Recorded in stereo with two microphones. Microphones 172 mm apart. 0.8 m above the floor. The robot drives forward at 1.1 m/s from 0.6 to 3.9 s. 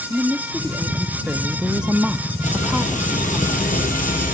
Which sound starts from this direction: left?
Frying, at 2.4 s.